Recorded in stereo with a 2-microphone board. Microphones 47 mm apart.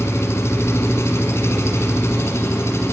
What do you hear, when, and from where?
0.0 s an engine running: 70° left (ahead or behind), 3 m